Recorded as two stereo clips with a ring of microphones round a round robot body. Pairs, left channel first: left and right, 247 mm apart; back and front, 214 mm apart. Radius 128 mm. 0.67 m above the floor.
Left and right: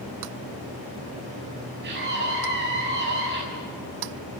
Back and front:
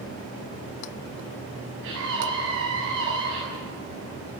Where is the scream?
40° right, 6.5 m.